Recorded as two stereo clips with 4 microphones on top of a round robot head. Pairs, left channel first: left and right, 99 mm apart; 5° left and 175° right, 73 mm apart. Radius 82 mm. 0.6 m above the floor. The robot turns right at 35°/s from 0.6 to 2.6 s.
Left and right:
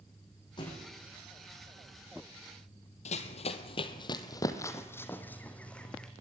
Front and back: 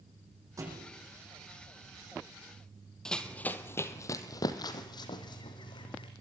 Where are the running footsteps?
85° left, 1.5 m; by 6.1 s 10° left, 3 m.